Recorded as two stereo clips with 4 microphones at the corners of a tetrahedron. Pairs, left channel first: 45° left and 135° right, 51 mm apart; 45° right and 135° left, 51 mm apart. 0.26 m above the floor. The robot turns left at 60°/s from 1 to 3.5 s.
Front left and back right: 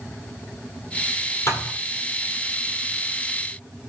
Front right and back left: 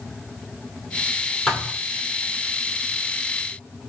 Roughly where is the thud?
Ahead left.